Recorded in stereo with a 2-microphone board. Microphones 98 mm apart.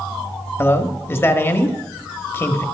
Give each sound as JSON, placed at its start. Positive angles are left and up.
{"t": 0.6, "sound": "a man speaking", "side_deg": 25, "distance_m": 1.2}